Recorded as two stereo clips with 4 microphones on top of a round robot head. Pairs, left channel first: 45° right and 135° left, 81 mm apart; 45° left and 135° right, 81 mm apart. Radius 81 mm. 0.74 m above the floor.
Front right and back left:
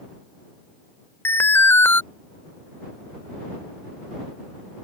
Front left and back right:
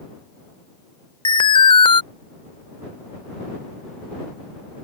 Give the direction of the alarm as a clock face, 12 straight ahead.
11 o'clock.